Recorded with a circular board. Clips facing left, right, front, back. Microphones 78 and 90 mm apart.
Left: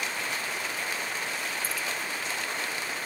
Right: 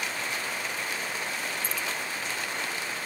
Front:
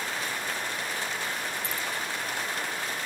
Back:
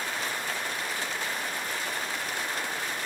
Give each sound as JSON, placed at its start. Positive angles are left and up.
{"t": 1.6, "sound": "keys jangling", "azimuth_deg": 5}